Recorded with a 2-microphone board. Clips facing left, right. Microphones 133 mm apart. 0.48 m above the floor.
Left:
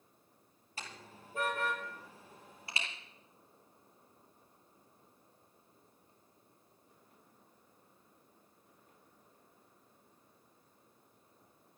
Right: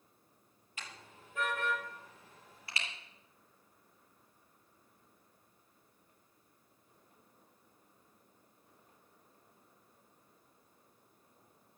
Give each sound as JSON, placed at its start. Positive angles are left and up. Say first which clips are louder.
{"t": 0.8, "sound": "a car horn", "louder": "left 2 dB", "side_deg": 35, "distance_m": 6.0}